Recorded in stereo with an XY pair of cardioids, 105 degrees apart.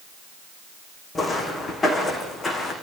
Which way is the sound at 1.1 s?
35° left.